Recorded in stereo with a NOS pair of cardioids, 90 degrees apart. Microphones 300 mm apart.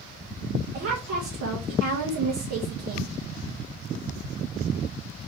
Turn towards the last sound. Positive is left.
turn(degrees=-50)